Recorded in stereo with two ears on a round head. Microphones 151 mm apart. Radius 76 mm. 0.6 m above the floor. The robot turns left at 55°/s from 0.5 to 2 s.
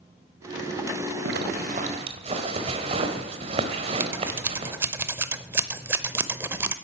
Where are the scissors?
15° right (ahead or behind), 0.7 m.